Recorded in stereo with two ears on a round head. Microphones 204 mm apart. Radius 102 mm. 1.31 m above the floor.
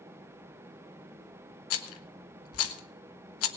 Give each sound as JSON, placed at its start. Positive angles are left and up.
{"t": 1.7, "sound": "a rattle", "side_deg": 70, "distance_m": 1.3}